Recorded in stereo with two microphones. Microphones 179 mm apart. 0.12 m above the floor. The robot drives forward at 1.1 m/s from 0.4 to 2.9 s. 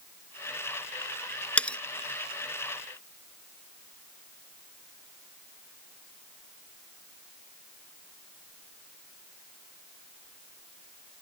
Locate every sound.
1.6 s cutlery clinking: 5° left (ahead or behind)